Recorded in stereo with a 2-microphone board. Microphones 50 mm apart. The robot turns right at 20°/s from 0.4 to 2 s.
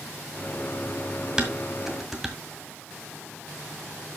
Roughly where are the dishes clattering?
Centre.